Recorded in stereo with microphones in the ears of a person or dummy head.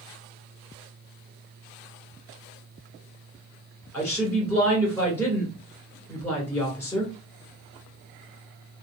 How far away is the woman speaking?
About 1.9 m.